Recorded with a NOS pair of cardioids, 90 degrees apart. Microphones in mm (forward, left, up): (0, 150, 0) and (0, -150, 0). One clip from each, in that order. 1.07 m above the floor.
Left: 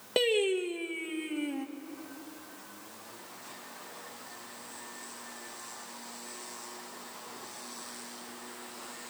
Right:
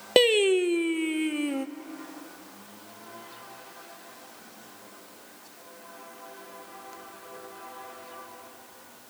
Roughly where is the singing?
Ahead right.